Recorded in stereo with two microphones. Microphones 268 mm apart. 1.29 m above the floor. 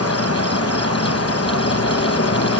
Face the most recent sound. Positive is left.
turn(degrees=65)  # may be behind; listen again after turning